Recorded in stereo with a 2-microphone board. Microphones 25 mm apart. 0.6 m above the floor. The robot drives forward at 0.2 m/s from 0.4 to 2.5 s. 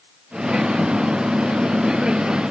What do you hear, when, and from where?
Only background noise.